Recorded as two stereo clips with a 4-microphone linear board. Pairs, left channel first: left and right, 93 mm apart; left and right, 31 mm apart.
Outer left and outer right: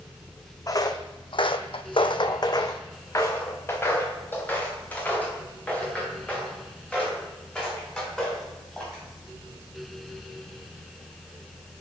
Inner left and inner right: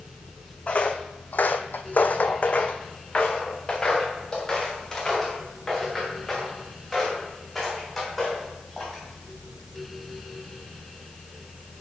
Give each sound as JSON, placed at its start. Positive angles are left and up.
{"t": 0.7, "sound": "footsteps", "side_deg": 40, "distance_m": 0.8}